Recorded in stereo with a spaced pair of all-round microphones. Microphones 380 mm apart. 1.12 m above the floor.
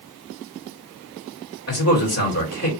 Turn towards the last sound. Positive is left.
turn(degrees=40)  # may be behind; listen again after turning